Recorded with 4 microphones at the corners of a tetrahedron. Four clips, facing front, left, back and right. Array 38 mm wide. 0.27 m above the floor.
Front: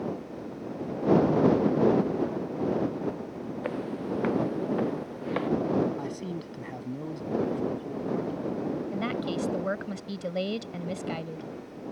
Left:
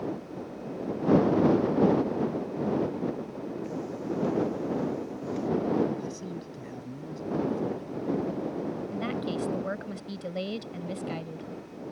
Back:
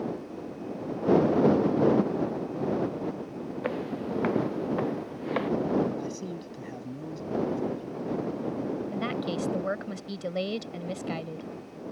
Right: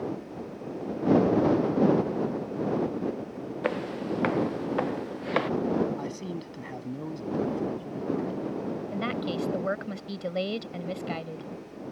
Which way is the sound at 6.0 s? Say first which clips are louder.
Right 2 dB, front 1 dB; 55° right.